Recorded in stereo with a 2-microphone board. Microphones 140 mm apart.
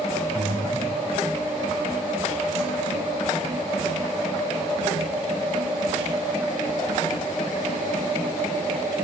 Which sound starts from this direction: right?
Breathing, at 0.3 s.